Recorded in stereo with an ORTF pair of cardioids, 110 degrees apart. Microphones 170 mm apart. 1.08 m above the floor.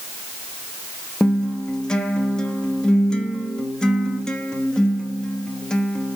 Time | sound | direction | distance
1.2 | a guitar | 5° left | 0.7 m